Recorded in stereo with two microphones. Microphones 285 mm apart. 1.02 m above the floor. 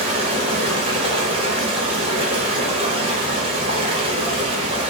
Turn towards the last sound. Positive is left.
turn(degrees=-20)  # may be behind; listen again after turning